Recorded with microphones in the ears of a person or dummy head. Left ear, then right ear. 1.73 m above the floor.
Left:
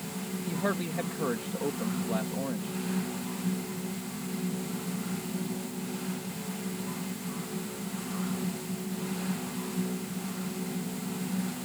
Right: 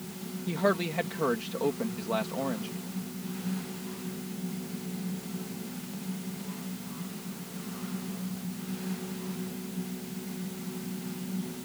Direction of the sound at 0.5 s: 30° right (ahead or behind).